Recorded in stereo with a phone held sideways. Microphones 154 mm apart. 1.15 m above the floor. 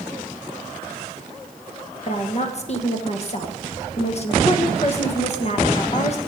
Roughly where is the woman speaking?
Left.